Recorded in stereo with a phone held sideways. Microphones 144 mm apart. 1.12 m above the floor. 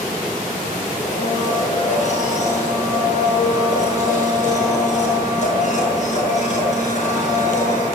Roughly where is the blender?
Left.